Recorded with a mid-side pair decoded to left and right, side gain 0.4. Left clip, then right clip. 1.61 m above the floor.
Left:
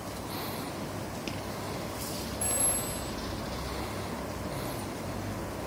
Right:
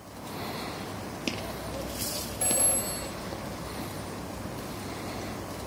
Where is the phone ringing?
70° right, 6 m.